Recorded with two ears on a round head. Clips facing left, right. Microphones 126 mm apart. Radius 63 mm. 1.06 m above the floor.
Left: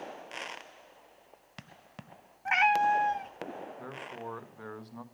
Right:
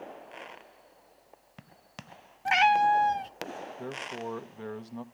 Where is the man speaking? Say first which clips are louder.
Right 4 dB; 25° right (ahead or behind), 1.1 m.